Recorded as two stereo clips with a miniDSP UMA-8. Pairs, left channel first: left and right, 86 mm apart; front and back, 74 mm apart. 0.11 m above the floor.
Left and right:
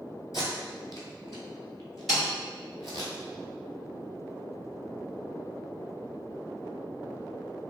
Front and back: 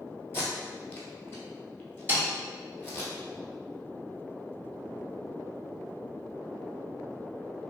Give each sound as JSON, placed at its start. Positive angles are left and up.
{"t": 0.3, "sound": "tape being pulled", "azimuth_deg": 50, "distance_m": 0.9}
{"t": 2.1, "sound": "a snare drum", "azimuth_deg": 180, "distance_m": 1.9}